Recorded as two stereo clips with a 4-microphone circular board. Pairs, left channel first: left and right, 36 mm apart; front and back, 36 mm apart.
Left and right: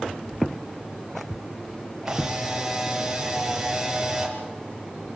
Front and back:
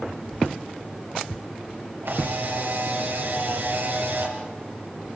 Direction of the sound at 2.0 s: 165° right.